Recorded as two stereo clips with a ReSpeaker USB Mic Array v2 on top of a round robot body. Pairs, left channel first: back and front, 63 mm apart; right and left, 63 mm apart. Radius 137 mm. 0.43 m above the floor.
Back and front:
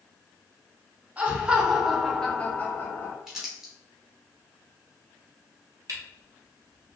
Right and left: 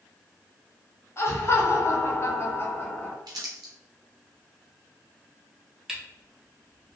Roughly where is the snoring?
No snoring in this recording.